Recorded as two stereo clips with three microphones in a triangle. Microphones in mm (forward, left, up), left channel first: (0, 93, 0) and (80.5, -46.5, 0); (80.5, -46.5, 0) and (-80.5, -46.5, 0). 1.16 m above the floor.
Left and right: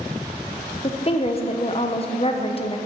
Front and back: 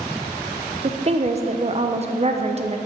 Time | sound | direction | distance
0.8 | a woman speaking | 155° left | 0.6 m